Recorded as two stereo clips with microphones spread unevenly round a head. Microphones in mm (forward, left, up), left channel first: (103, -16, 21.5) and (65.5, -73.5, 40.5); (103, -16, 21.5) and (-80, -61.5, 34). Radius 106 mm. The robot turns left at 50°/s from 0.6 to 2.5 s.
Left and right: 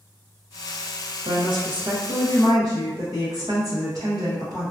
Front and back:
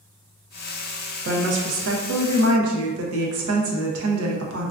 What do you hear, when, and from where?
1.2 s a woman speaking: 130° right, 0.6 m; by 4.7 s 165° left, 0.6 m